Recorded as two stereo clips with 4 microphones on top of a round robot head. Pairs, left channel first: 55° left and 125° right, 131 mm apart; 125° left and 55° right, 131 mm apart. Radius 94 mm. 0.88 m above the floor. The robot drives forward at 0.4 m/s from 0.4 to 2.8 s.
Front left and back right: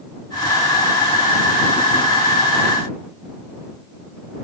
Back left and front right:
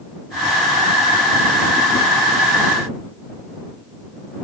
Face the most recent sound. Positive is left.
No sound to turn to.